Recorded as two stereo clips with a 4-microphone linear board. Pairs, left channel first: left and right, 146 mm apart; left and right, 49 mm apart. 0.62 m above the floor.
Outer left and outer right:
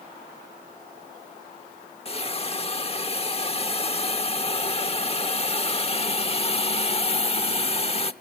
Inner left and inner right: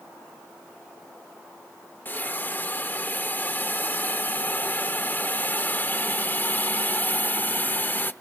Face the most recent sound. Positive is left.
turn(degrees=40)  # may be behind; listen again after turning